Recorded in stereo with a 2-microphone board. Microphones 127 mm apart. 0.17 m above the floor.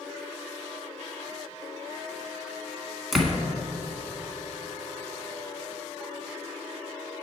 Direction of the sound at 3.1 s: Centre (ahead or behind).